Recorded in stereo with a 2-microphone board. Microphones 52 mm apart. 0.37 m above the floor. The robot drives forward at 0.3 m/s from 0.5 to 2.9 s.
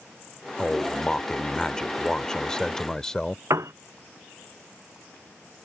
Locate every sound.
0.6 s a man speaking: 15° left (ahead or behind); by 3.4 s 10° left (ahead or behind)
3.5 s a piano: 85° right